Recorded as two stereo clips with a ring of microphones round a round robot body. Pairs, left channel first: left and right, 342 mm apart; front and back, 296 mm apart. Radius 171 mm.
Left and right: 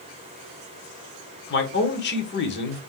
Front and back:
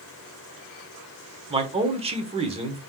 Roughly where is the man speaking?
Behind left.